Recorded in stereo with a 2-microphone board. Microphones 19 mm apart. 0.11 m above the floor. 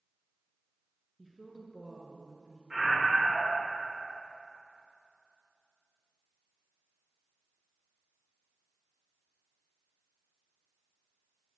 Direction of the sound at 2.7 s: 35° right (ahead or behind).